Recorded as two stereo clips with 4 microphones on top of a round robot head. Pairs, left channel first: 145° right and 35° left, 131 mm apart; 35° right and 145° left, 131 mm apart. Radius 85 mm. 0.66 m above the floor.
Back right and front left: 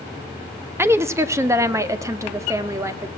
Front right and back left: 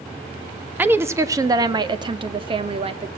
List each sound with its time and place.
0.8 s a woman speaking: 85° left, 1.1 m; by 3.1 s 100° left, 2 m